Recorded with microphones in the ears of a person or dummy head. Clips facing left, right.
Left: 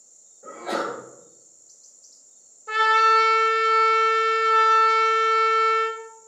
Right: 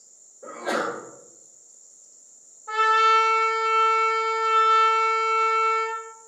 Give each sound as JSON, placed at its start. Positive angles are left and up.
{"t": 0.4, "sound": "a sneeze", "side_deg": -80, "distance_m": 1.8}
{"t": 2.7, "sound": "a trumpet", "side_deg": 25, "distance_m": 0.5}